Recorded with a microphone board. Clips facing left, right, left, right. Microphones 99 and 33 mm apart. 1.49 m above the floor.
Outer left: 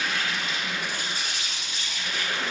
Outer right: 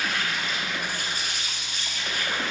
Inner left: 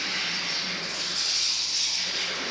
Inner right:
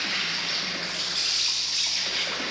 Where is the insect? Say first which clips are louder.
Even, inner right 1 dB; 45° right (ahead or behind), 1.1 m.